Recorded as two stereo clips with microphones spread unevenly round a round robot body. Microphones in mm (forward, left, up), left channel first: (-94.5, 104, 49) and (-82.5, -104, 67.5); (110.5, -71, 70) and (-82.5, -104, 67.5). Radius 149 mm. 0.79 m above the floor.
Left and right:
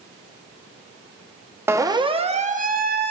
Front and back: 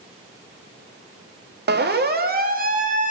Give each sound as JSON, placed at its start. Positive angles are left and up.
{"t": 1.7, "sound": "a siren", "azimuth_deg": -165, "distance_m": 2.5}